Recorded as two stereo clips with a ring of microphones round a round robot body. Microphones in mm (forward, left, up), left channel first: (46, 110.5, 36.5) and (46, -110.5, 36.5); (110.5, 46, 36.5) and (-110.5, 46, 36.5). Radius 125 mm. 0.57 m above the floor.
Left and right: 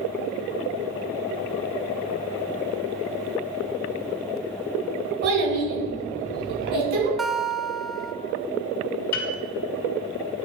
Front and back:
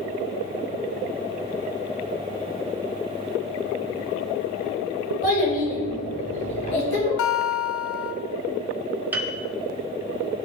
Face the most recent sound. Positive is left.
turn(degrees=100)